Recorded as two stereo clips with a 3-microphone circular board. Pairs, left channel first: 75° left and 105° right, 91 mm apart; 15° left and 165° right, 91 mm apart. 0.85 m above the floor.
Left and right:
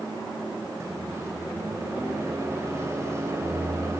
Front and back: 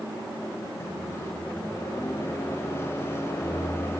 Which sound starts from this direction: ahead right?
A microwave, at 0.8 s.